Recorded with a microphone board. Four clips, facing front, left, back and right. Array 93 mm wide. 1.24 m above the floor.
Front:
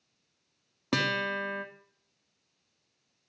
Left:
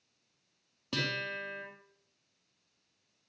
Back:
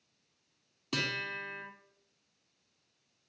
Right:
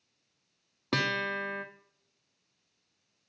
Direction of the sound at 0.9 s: 40° right.